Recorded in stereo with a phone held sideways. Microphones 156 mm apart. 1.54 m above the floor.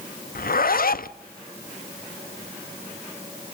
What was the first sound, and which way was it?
A zipper, 70° left (ahead or behind).